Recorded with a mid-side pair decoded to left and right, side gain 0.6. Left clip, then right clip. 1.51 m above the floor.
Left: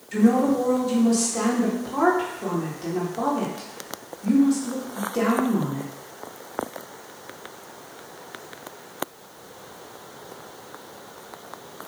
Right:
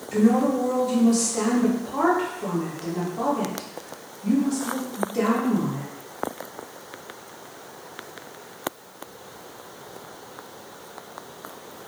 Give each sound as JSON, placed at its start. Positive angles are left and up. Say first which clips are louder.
{"t": 0.1, "sound": "a woman speaking", "louder": "left 1 dB", "azimuth_deg": 10, "distance_m": 1.5}